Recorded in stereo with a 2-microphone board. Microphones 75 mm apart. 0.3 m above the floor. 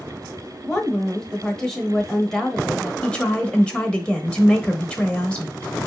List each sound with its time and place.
0.6 s a woman speaking: 5° left (ahead or behind), 1.1 m
3.0 s a woman speaking: 15° left (ahead or behind), 1.0 m